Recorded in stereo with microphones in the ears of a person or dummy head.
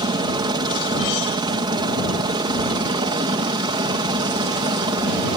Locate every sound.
0.0 s a helicopter: 25° right (ahead or behind)